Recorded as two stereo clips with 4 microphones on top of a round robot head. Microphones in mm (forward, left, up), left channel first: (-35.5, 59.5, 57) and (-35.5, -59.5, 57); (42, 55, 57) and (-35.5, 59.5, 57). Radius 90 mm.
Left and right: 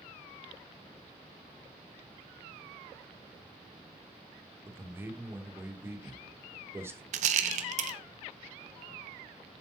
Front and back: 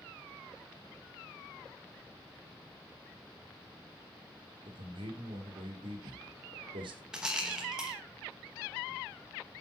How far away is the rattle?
About 0.8 m.